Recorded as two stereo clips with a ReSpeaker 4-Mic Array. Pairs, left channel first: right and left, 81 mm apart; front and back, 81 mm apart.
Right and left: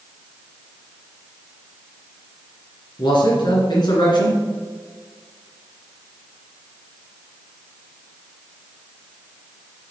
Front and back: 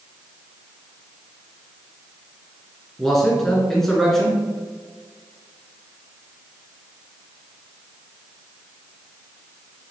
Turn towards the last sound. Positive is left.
turn(degrees=-85)